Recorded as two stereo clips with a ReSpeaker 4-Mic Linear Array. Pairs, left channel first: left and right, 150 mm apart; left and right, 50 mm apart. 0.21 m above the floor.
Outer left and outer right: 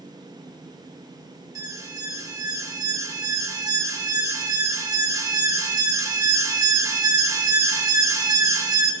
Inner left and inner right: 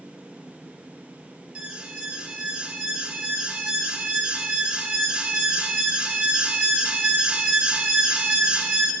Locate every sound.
1.6 s an alarm: 20° right (ahead or behind), 1.0 m